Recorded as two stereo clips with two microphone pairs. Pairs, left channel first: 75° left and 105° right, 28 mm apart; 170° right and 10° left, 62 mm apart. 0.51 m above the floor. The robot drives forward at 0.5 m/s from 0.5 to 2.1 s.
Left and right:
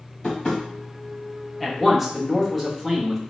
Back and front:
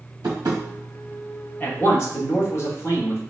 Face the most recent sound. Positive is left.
turn(degrees=175)